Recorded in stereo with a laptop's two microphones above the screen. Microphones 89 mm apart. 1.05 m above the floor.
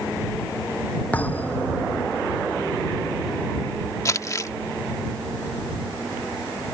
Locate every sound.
1.1 s a thud: 15° left (ahead or behind)
4.0 s crumpling: 40° left (ahead or behind)